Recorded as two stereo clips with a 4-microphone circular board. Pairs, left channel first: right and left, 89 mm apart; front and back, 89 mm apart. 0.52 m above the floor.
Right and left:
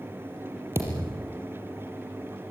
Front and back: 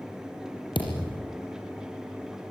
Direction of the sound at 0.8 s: 30° left.